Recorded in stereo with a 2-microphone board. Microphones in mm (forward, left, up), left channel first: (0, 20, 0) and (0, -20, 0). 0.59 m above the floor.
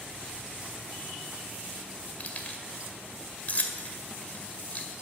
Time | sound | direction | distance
2.2 | keys jangling | 40° left (ahead or behind) | 1.9 m